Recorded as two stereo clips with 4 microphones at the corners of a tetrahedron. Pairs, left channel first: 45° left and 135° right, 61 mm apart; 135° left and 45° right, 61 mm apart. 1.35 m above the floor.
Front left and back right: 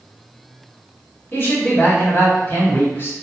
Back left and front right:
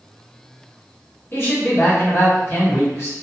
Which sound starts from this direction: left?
A man speaking, at 1.3 s.